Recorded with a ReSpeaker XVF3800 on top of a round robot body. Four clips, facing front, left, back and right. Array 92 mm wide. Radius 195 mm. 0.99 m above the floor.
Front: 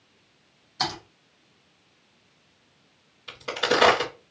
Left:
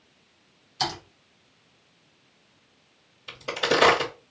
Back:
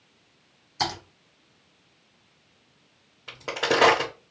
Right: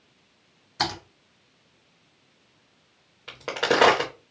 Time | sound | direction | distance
0.8 | typing on a keyboard | 100° right | 1.9 m
3.3 | a crack | 115° right | 0.9 m